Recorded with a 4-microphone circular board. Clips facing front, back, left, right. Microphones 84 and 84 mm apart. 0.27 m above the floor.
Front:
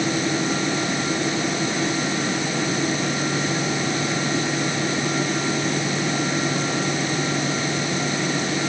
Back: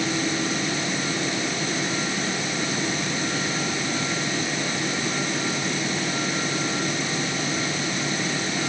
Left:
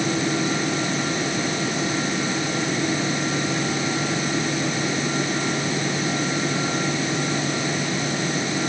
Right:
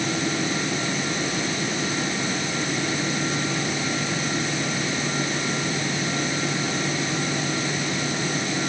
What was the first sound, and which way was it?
Only background noise.